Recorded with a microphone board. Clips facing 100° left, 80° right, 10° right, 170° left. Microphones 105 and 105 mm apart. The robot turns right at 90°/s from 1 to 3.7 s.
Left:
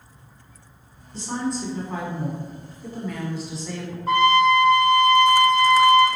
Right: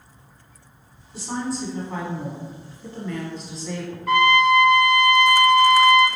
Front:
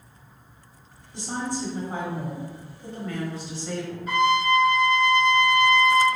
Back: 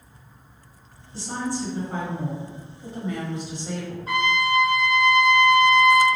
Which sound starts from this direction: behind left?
A trumpet, at 4.1 s.